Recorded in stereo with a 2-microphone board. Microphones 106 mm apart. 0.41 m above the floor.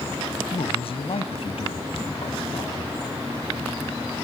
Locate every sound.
0.5 s a man speaking: 65° left (ahead or behind), 2 m